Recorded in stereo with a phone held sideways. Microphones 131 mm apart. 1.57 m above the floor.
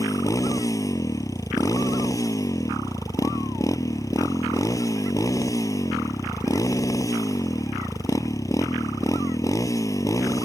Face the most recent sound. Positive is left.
turn(degrees=25)  # may be behind; listen again after turning